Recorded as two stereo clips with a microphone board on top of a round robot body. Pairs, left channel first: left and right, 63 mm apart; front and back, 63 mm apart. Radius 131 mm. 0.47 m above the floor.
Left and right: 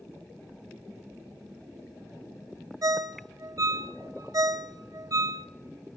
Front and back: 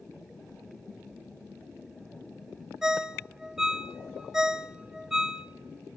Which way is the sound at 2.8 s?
100° right.